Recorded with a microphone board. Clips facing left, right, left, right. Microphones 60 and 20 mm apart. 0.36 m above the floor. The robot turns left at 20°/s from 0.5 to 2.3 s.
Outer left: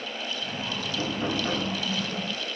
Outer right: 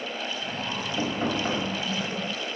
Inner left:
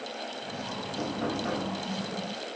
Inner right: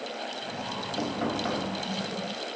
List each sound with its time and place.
1.0 s knocking: 35° right (ahead or behind), 1.9 m; by 1.7 s 25° right (ahead or behind), 1.9 m